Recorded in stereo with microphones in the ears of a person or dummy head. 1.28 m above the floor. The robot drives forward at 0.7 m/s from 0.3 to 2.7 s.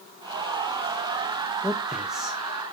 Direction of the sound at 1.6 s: Centre (ahead or behind).